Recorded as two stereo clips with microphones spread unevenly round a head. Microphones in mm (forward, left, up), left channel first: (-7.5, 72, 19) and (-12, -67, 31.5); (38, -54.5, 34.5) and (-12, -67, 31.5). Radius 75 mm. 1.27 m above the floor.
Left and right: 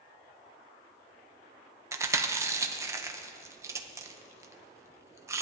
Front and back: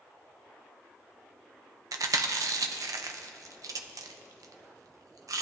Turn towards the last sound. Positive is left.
turn(degrees=-165)